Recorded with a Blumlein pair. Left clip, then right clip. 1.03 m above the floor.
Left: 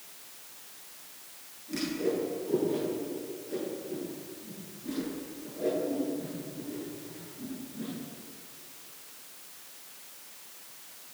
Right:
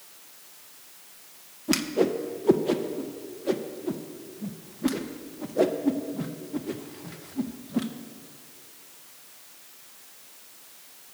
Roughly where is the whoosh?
Ahead right.